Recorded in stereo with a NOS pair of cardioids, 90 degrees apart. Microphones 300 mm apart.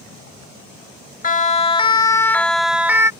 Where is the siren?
25° left; by 3.1 s 10° right.